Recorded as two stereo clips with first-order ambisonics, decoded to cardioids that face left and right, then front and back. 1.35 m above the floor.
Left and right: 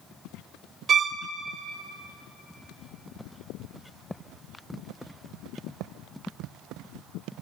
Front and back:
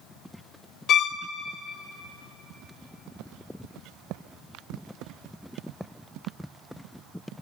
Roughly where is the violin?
Ahead right.